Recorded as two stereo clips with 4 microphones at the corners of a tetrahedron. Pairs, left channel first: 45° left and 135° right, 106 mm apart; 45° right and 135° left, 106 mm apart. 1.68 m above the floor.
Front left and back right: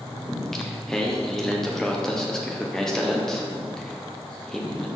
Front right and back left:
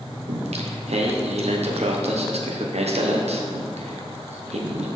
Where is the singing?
130° left, 1.0 m.